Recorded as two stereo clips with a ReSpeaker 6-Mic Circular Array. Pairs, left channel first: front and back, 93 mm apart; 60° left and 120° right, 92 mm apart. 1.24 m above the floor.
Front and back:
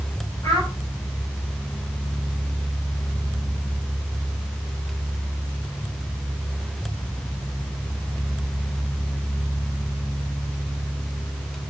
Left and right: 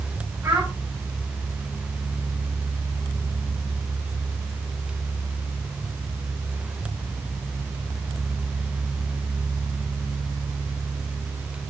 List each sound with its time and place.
0.4 s a child speaking: 55° right, 6 m